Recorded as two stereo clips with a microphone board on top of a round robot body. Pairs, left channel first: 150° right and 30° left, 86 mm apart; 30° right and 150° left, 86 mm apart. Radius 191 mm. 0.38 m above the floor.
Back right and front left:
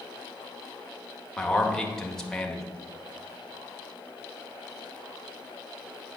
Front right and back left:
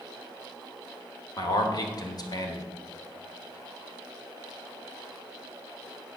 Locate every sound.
1.4 s a man speaking: 65° right, 1.9 m